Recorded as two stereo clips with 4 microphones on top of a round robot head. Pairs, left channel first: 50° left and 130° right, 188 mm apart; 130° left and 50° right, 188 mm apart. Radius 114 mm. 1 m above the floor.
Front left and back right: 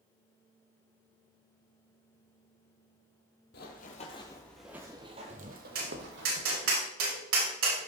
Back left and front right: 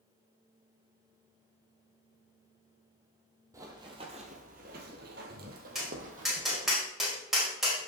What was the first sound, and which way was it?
Running footsteps, 20° left.